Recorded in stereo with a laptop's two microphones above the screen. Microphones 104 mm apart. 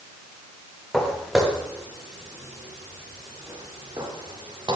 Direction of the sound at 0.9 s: 5° left (ahead or behind).